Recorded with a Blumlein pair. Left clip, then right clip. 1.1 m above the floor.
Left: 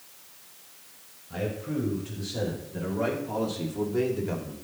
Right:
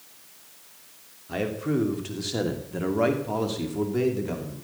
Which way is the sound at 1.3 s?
50° right.